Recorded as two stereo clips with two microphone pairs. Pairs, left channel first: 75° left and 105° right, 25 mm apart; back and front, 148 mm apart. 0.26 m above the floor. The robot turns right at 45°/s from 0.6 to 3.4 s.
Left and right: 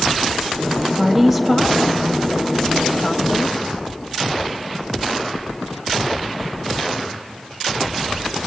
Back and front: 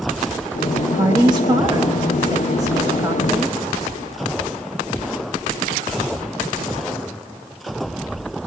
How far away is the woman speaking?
About 1.1 m.